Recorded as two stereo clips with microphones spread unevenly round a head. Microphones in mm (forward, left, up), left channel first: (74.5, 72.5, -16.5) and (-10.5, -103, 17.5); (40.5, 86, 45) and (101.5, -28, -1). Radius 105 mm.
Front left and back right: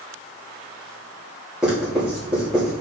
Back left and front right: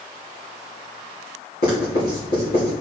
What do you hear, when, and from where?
1.6 s writing: 155° left, 3.5 m